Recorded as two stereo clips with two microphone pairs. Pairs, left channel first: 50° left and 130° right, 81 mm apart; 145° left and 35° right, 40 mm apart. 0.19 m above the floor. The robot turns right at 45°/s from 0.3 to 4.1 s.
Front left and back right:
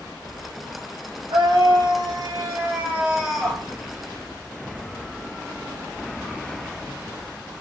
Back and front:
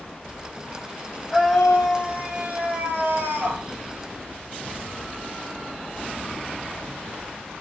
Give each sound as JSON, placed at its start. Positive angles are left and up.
{"t": 1.3, "sound": "a scream", "azimuth_deg": -135, "distance_m": 9.0}